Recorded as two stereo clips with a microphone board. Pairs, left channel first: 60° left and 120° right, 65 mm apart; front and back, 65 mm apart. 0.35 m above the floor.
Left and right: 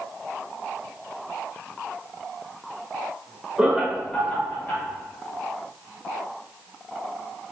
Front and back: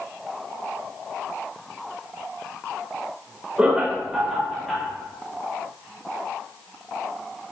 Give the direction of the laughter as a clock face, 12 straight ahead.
5 o'clock.